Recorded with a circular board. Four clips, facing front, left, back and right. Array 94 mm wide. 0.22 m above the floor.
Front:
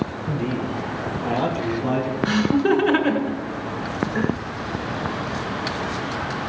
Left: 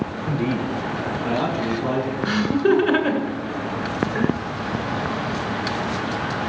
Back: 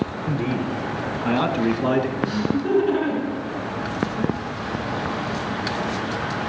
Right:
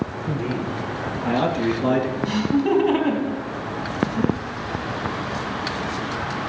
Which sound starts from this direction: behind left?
A man speaking, at 0.3 s.